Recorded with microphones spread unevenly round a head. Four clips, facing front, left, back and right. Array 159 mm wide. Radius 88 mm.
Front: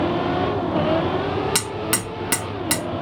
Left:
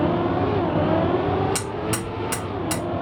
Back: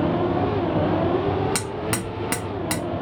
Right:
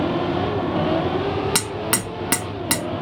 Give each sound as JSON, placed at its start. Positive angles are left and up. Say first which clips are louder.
{"t": 1.6, "sound": "hammering", "louder": "right 1 dB, front 1 dB", "azimuth_deg": -120, "distance_m": 1.3}